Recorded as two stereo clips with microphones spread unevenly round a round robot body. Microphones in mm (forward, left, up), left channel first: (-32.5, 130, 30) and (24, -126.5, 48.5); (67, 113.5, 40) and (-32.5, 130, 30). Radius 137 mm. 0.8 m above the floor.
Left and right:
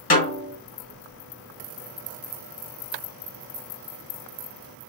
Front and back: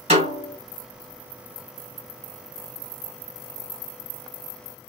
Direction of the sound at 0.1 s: 160° left.